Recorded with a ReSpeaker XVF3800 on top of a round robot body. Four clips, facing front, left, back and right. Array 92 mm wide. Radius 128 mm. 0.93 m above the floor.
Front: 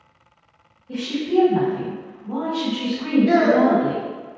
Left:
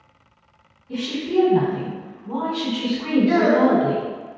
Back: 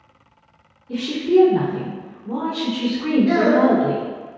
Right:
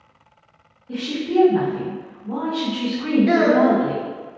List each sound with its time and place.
0.9 s a woman speaking: 60° right, 1.6 m
3.3 s a child speaking: 90° right, 0.7 m